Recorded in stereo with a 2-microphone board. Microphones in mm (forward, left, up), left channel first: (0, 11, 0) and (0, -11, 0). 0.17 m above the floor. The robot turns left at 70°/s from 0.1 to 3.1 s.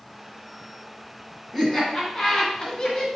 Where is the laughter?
5° left (ahead or behind), 1.8 m; by 3.1 s 30° left (ahead or behind), 1.8 m.